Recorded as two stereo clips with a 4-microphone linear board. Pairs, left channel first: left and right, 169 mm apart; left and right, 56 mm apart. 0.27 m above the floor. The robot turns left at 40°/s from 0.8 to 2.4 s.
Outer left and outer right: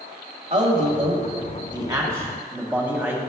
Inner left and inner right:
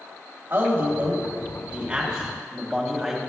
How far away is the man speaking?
About 1.7 m.